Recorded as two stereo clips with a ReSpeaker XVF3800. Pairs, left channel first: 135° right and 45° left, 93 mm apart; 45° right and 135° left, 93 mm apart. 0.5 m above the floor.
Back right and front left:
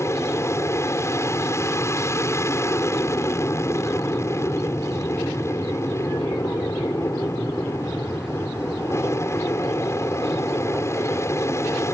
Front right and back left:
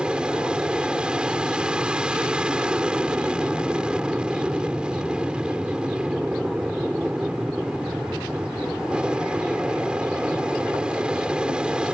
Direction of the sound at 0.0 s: 155° right.